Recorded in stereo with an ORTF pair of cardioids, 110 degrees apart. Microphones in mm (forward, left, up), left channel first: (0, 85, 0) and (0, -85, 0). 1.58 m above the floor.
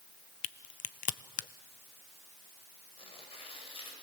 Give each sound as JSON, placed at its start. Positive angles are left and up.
{"t": 0.4, "sound": "a crack", "azimuth_deg": 50, "distance_m": 0.8}
{"t": 3.0, "sound": "tearing paper", "azimuth_deg": 30, "distance_m": 8.0}